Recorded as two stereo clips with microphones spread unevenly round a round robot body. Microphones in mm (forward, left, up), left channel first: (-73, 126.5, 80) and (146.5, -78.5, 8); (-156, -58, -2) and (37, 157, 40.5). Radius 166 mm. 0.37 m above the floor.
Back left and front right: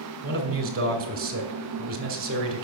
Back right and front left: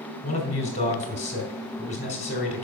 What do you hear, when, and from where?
0.2 s a man speaking: 80° right, 2.0 m